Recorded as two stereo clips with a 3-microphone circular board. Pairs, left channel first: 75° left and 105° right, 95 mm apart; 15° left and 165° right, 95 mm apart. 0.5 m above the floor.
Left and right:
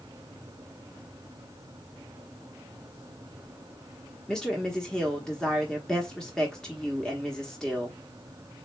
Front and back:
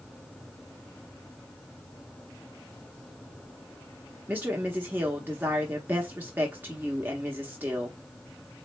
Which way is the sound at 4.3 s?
150° left.